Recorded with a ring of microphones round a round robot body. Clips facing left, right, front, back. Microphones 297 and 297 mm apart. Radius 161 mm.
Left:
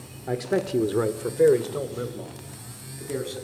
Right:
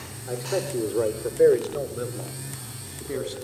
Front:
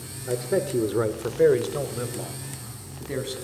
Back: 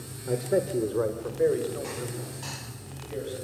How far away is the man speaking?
About 1.2 m.